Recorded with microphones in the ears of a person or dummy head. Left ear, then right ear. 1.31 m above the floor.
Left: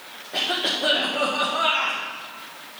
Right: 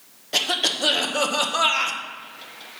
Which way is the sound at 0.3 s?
85° right.